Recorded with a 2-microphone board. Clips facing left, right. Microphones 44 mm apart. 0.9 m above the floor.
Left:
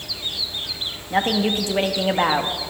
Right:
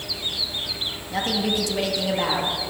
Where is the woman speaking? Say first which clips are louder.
Left 4 dB; 35° left (ahead or behind), 1.0 m.